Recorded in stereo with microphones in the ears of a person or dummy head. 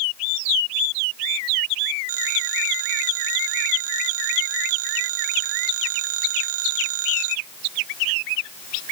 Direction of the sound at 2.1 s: 85° right.